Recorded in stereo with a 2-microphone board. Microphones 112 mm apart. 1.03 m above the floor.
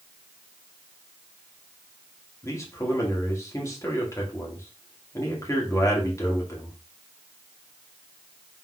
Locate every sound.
2.4 s a man speaking: 25° left (ahead or behind), 1.8 m